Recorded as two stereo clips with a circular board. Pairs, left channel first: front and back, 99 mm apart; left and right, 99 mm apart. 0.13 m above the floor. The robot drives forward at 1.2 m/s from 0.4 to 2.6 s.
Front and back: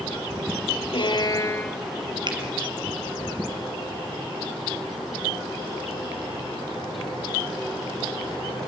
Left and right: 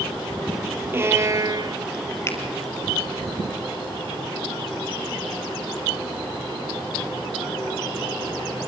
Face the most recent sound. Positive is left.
turn(degrees=155)